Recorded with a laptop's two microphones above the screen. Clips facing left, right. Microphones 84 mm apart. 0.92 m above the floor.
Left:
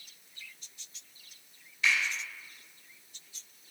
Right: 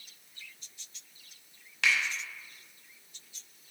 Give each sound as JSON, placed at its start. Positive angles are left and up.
{"t": 1.8, "sound": "a finger snap", "side_deg": -75, "distance_m": 0.8}